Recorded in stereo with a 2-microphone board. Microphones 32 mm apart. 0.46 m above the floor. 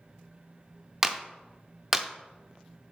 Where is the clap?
15° right (ahead or behind), 0.6 m.